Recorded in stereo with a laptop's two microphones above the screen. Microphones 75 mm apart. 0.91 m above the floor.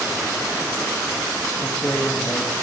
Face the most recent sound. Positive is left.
turn(degrees=35)  # may be behind; listen again after turning